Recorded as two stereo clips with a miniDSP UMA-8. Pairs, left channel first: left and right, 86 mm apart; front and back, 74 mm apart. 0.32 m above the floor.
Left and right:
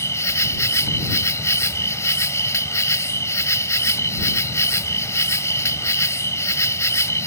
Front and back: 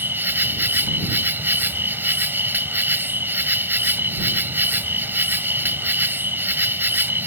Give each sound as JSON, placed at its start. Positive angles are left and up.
{"t": 0.0, "sound": "an insect", "azimuth_deg": 130}